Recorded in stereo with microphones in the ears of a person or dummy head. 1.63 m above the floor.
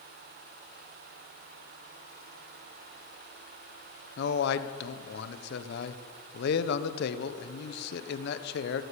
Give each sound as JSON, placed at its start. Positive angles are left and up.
{"t": 4.2, "sound": "a man speaking", "side_deg": 70, "distance_m": 1.1}